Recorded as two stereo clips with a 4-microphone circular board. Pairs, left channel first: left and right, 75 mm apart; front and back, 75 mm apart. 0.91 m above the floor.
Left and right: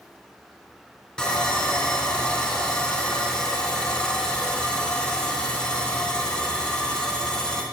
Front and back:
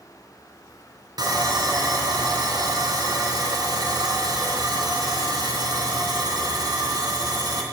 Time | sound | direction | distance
1.2 | sawing | 170° left | 3 m